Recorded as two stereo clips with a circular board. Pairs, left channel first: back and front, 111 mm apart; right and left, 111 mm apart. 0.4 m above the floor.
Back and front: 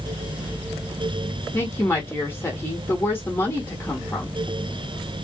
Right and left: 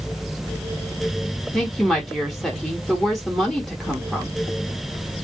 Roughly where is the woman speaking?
Behind.